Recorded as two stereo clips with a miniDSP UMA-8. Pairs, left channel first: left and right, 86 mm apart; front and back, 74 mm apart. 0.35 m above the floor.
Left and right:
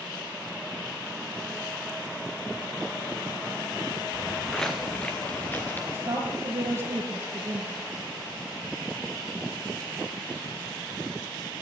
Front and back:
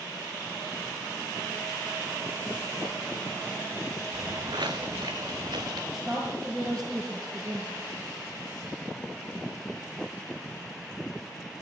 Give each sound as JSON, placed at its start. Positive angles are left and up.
{"t": 4.1, "sound": "footsteps", "azimuth_deg": -175, "distance_m": 1.4}
{"t": 5.9, "sound": "a woman speaking", "azimuth_deg": -150, "distance_m": 8.0}